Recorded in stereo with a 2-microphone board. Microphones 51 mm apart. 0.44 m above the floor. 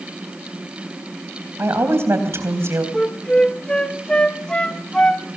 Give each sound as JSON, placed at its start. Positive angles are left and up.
{"t": 1.6, "sound": "a woman speaking", "side_deg": -55, "distance_m": 3.0}
{"t": 2.9, "sound": "a flute", "side_deg": 20, "distance_m": 0.8}